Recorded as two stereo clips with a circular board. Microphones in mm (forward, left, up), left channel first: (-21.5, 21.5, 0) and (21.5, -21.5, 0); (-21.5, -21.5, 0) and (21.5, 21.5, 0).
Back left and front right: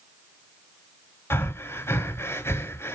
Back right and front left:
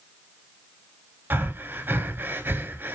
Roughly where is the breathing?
Left.